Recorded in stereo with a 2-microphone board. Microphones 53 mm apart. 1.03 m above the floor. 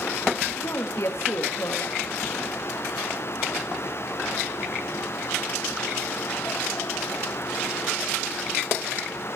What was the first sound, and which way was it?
A woman speaking, 65° left (ahead or behind).